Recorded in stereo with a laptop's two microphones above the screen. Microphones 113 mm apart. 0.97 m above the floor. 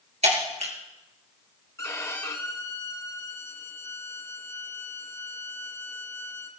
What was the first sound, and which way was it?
Breaking glass, 75° right (ahead or behind).